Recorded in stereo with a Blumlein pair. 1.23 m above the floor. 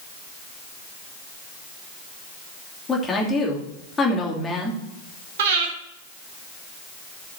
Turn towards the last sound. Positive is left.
turn(degrees=-55)